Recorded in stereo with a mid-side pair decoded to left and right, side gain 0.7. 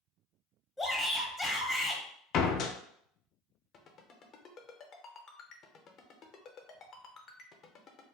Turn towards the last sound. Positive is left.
turn(degrees=40)